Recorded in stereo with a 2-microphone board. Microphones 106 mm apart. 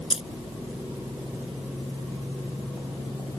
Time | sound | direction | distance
0.1 | keys jangling | 70° left (ahead or behind) | ?